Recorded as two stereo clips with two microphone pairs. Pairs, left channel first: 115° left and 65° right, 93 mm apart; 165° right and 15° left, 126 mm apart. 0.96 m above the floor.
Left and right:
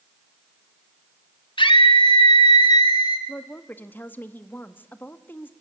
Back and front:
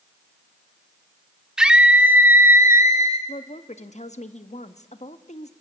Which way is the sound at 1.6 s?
100° left.